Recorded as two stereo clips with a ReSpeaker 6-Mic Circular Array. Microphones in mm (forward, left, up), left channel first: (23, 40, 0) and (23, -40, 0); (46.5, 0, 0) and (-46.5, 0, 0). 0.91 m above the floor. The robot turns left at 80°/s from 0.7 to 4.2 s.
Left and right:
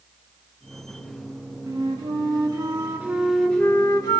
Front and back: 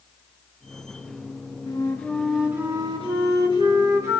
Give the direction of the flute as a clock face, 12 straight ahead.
1 o'clock.